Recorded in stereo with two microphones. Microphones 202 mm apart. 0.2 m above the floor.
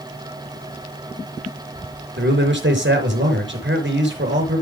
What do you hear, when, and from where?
2.2 s a man speaking: 60° right (ahead or behind), 4 m